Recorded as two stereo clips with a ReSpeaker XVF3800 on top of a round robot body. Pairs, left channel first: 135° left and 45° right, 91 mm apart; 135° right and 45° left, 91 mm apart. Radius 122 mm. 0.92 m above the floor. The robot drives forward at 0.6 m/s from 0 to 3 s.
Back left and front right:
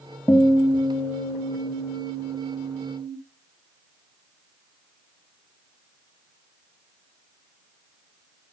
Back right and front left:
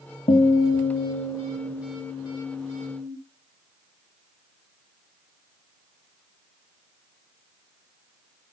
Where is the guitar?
165° right, 1.3 m; by 3.1 s 175° right, 3 m.